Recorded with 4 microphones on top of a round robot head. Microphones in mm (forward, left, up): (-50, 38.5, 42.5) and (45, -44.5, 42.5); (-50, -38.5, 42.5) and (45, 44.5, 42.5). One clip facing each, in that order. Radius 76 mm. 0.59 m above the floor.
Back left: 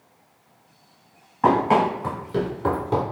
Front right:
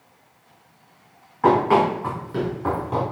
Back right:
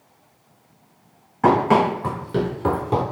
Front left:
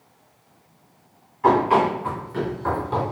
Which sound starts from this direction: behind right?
Running footsteps, at 1.4 s.